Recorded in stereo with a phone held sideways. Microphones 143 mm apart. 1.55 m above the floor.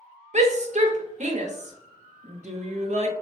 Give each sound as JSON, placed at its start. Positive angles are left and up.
{"t": 0.3, "sound": "a shout", "side_deg": -50, "distance_m": 0.6}